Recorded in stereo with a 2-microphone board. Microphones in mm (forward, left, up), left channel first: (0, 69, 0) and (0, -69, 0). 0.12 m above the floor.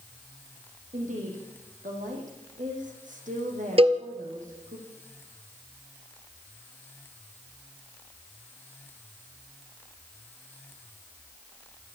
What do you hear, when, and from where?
0.9 s a woman speaking: 70° right (ahead or behind), 7 m
3.8 s a cowbell: 45° right (ahead or behind), 1.7 m